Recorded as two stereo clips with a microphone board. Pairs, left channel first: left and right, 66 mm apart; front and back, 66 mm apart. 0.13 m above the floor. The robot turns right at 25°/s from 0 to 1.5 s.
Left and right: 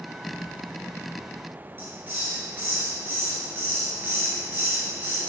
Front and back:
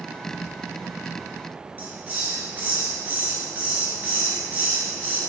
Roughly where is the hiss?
Behind right.